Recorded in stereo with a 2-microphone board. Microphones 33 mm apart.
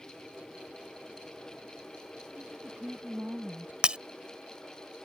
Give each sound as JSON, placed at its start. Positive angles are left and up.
{"t": 2.4, "sound": "a woman speaking", "side_deg": -70}
{"t": 3.8, "sound": "breaking glass", "side_deg": -30}